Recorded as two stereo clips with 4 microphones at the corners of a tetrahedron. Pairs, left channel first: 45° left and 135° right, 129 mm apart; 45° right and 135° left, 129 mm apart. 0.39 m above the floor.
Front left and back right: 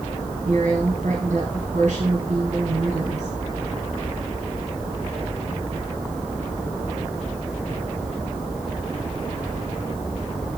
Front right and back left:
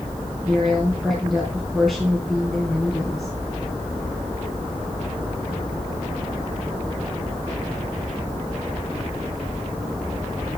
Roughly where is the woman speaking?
Behind right.